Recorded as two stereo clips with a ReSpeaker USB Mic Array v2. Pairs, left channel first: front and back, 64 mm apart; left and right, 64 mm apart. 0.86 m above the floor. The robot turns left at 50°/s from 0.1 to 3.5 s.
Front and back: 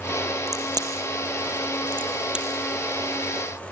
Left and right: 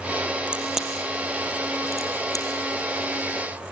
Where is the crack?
160° right, 4 m; by 2.5 s 100° left, 4 m.